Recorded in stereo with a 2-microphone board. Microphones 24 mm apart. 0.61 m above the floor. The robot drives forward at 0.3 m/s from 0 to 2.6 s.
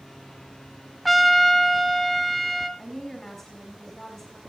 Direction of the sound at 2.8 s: 15° left (ahead or behind).